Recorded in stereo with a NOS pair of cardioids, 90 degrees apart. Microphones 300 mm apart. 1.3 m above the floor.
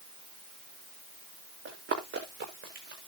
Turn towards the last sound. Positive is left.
turn(degrees=-35)